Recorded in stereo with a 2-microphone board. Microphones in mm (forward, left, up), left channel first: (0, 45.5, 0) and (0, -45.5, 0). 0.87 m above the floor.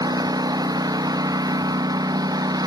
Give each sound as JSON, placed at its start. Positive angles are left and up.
{"t": 0.0, "sound": "a lawn mower", "side_deg": -45}